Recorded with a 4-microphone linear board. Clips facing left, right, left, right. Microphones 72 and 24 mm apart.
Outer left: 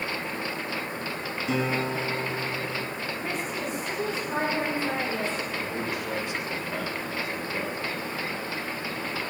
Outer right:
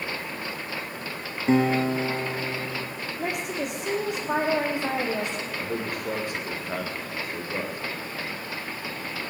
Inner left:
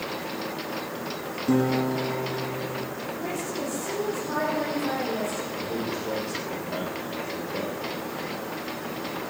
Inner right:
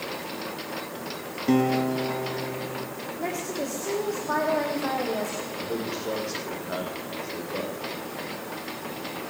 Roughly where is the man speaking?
Right.